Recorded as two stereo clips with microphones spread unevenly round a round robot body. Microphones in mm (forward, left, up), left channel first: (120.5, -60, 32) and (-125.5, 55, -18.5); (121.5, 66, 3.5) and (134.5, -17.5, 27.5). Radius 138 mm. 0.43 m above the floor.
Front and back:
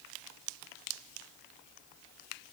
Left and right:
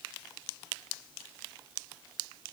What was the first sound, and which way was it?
Only background noise.